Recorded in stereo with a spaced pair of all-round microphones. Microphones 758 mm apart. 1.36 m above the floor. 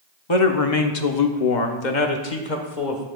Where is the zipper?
No zipper in this recording.